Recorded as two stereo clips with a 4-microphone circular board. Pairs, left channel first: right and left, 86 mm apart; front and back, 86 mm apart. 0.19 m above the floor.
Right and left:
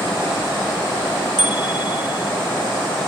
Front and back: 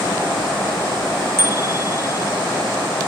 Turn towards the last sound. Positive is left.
turn(degrees=-120)